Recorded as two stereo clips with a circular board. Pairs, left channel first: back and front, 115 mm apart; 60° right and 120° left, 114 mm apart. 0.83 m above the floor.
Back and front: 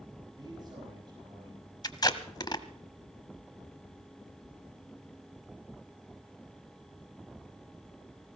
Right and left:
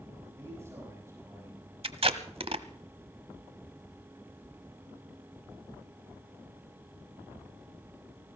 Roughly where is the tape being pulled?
Behind left.